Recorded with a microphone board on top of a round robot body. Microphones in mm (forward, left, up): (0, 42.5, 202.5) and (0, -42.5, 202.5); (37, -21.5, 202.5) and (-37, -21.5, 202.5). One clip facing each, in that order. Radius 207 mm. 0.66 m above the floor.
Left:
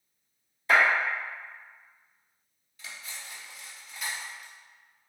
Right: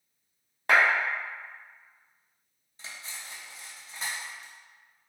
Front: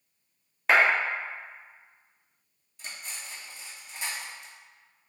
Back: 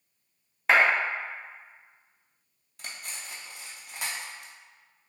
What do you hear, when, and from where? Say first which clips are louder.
0.7 s a clap: even, even; 90° right, 1.5 m
2.8 s cutlery clinking: even, even; 150° right, 0.6 m